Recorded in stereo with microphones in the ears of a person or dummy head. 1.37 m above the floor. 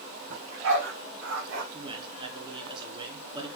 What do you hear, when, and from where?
0.3 s a dog barking: 70° right (ahead or behind), 3.5 m; by 1.6 s 75° right (ahead or behind), 4.5 m
1.7 s a man speaking: 30° right (ahead or behind), 3.5 m